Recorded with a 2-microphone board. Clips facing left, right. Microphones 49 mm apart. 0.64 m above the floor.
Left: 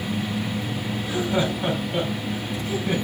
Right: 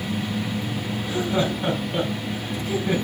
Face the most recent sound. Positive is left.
turn(degrees=0)  # may be behind; listen again after turning